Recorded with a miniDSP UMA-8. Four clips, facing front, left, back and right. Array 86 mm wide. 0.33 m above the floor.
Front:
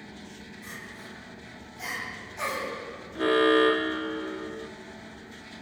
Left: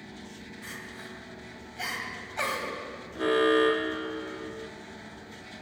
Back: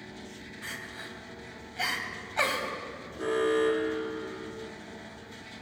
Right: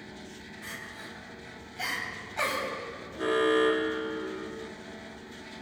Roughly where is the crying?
Behind.